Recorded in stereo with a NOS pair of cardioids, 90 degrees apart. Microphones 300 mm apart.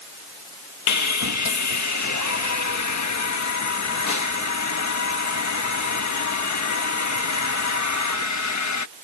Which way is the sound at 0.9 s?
70° left.